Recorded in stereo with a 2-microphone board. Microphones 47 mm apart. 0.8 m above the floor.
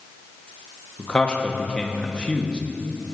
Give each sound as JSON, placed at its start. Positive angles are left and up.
{"t": 1.0, "sound": "a man speaking", "side_deg": 20, "distance_m": 1.1}